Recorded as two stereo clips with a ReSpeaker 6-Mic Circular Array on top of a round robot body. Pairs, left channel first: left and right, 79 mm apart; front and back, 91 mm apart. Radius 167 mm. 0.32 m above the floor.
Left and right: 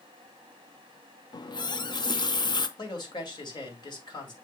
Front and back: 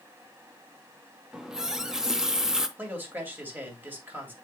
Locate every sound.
1.3 s a running tap: 95° left, 0.9 m
2.8 s a man speaking: 110° left, 2.5 m